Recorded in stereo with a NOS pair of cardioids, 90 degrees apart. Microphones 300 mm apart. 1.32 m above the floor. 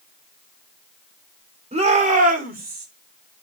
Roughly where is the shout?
Ahead.